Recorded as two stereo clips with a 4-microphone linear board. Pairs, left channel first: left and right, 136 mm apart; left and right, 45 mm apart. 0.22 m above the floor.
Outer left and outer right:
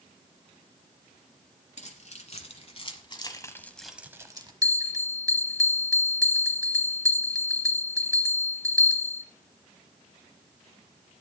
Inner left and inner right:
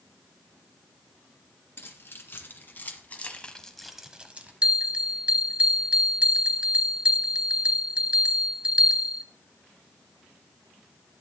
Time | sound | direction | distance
1.8 | keys jangling | 65° left (ahead or behind) | 2 m
4.6 | a bell | 25° right (ahead or behind) | 0.7 m